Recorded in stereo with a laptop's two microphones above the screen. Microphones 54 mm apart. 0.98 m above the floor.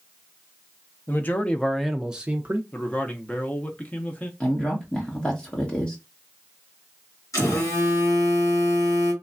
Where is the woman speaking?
20° left (ahead or behind), 1.2 m.